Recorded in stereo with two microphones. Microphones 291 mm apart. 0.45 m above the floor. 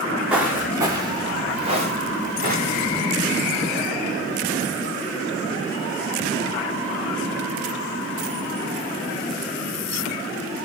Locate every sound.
0.3 s footsteps: 5° right (ahead or behind), 2.5 m; by 3.0 s 30° right (ahead or behind), 4 m